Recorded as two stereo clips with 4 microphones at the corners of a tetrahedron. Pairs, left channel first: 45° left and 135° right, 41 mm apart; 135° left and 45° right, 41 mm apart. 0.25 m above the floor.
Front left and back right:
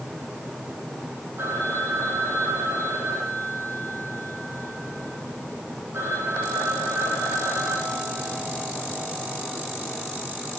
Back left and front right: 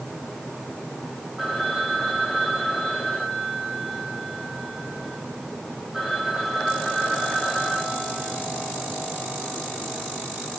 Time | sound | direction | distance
1.4 | a phone ringing | 130° right | 8.5 m